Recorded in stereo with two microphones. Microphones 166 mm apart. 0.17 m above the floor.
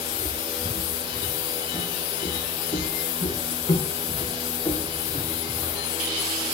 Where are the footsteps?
40° left (ahead or behind), 9 m; by 5.8 s 25° left (ahead or behind), 3.5 m.